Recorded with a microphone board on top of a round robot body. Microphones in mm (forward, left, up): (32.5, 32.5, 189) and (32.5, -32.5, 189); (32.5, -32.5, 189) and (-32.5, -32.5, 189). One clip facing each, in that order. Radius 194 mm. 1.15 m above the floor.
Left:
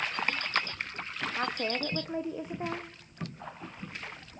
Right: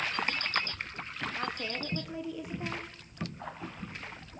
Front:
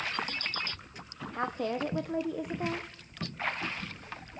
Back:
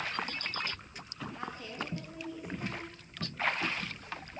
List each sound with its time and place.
1.3 s a woman speaking: 30° left, 1.1 m